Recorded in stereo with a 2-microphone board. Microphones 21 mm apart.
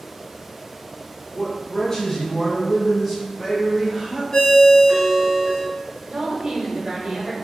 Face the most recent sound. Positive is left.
turn(degrees=-50)  # may be behind; listen again after turning